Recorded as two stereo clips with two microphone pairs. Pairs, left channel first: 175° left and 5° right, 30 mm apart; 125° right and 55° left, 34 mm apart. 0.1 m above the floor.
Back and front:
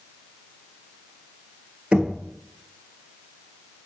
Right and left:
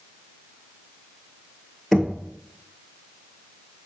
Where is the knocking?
25° right, 1.2 m.